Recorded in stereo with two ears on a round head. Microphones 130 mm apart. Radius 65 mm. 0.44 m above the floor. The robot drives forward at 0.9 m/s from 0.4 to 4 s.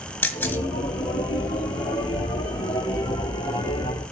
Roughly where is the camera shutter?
Centre.